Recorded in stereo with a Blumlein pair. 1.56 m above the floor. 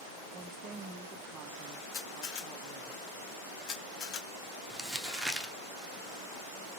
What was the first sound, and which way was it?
A woman speaking, 30° right.